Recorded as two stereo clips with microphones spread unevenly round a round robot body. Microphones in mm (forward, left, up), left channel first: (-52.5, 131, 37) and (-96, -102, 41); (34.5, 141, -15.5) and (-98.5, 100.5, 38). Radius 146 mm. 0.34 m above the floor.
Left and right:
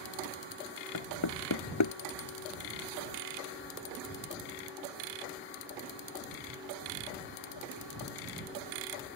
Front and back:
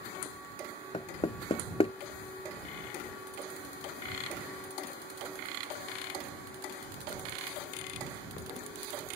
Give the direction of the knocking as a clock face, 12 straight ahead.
10 o'clock.